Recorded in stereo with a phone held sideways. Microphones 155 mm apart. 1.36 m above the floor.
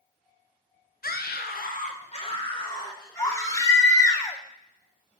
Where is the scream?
80° left, 0.9 m; by 4.2 s 15° left (ahead or behind), 3 m.